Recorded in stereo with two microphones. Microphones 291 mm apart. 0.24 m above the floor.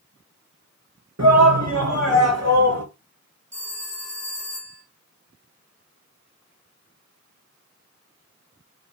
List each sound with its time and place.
1.2 s a shout: 65° right (ahead or behind), 4 m; by 2.9 s 55° right (ahead or behind), 3 m
3.5 s a phone ringing: 40° right (ahead or behind), 2.5 m